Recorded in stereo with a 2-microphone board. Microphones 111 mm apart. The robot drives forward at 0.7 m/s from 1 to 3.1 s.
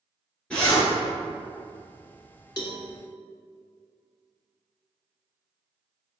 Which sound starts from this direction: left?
A cowbell, at 2.6 s.